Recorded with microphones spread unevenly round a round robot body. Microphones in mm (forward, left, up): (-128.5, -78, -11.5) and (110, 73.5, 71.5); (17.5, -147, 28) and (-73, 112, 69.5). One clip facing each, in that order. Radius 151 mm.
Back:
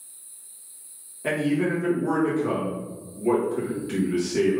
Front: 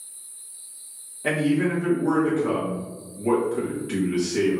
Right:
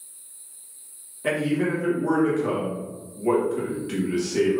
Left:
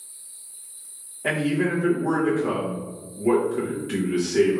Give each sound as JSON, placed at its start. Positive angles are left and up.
{"t": 1.2, "sound": "a man speaking", "azimuth_deg": -100, "distance_m": 1.0}